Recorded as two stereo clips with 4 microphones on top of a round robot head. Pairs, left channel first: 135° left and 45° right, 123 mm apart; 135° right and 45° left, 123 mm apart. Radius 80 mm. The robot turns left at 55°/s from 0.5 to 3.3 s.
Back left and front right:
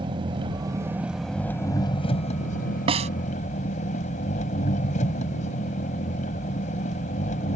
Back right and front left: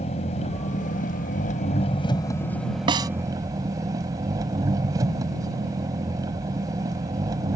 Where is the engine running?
100° right; by 7.6 s 110° left.